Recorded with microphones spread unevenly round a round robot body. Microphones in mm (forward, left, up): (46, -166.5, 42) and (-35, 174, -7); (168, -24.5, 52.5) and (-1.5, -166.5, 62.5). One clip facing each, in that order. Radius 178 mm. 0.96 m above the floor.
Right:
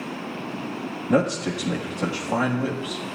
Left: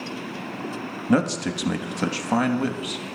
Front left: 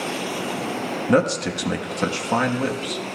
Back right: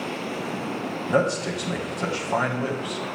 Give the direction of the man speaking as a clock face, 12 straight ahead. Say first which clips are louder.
Left 1 dB, front left 4 dB; 10 o'clock.